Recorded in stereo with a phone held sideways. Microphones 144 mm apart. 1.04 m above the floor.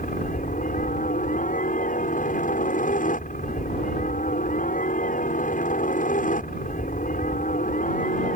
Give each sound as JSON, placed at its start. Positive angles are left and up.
{"t": 0.0, "sound": "a helicopter", "side_deg": 65}